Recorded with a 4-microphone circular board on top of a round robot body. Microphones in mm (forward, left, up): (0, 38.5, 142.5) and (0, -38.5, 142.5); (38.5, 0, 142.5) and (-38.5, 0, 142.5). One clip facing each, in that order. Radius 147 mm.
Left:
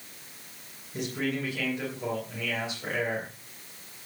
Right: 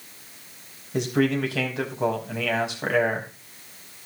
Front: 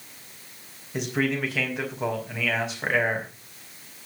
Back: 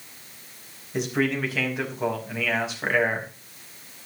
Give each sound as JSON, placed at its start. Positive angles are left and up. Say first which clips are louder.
{"t": 0.9, "sound": "a man speaking", "louder": "right 8 dB, back 1 dB", "azimuth_deg": -90, "distance_m": 5.5}